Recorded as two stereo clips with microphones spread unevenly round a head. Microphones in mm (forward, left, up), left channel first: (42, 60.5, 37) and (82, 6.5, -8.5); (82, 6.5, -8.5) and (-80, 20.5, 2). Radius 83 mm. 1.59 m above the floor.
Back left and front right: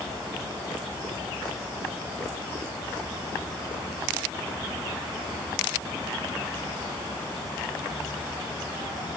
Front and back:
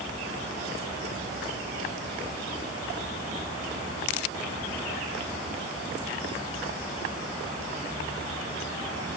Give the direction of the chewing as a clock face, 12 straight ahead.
No chewing in this recording.